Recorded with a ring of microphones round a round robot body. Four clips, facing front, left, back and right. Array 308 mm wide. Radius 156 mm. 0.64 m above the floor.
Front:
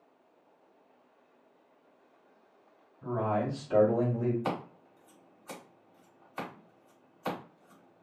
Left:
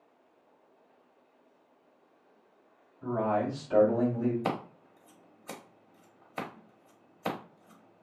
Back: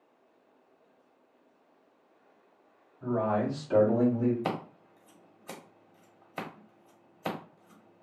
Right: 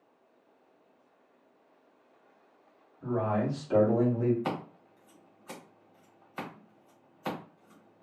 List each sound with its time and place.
3.0 s a man speaking: 160° right, 1.6 m; by 4.3 s 90° right, 1.3 m
4.4 s scissors: 135° left, 0.9 m